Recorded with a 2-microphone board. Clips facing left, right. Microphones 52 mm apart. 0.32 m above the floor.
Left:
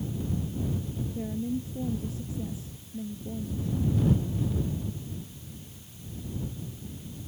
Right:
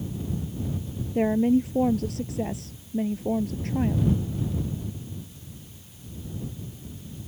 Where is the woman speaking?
80° right.